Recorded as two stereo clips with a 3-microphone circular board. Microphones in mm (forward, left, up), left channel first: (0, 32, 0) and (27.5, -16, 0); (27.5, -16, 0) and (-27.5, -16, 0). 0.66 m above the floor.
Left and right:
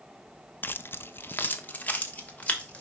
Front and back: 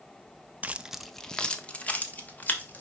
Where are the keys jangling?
135° left, 0.5 m; by 2.8 s 55° left, 2 m.